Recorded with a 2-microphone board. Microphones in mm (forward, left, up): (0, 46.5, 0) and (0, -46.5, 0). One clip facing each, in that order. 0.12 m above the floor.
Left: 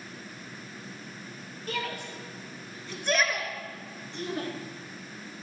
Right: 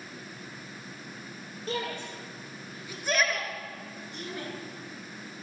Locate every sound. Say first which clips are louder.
1.7 s a shout: right 1 dB; 30° right (ahead or behind), 3.5 m; by 4.5 s 40° left (ahead or behind), 2 m